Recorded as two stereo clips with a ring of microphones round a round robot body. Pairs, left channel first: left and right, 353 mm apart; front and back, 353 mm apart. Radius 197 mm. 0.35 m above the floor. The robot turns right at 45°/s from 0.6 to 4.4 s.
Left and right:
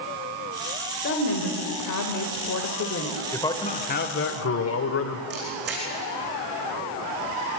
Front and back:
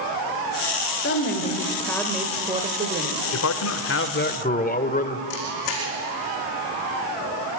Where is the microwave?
I don't hear a microwave.